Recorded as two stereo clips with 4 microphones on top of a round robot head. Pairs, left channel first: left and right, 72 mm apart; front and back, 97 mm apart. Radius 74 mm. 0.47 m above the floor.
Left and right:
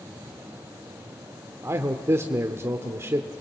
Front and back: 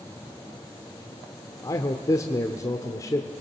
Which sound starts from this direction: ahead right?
A man speaking, at 1.6 s.